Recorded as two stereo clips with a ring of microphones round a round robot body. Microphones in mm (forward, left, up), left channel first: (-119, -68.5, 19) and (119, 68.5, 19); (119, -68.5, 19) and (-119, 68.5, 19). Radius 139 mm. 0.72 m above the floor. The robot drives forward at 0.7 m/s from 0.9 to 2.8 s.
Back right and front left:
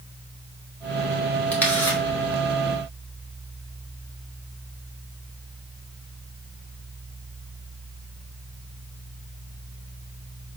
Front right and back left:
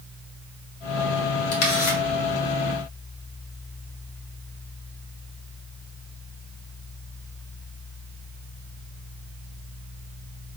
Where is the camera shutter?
65° right, 4 m; by 2.0 s 70° right, 4 m.